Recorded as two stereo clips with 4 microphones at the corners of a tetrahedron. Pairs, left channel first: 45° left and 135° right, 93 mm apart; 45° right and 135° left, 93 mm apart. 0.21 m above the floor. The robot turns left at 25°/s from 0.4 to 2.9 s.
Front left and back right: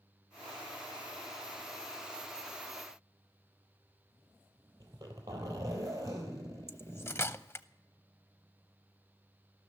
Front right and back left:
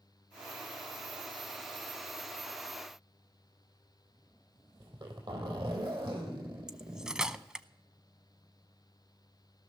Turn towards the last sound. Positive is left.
turn(degrees=65)